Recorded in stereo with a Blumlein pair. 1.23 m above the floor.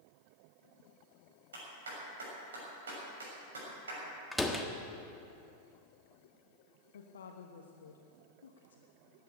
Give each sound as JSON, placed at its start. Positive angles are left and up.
{"t": 1.5, "sound": "a clap", "azimuth_deg": -65, "distance_m": 6.5}
{"t": 4.3, "sound": "a door slam", "azimuth_deg": 5, "distance_m": 1.3}
{"t": 6.9, "sound": "a woman speaking", "azimuth_deg": 65, "distance_m": 1.2}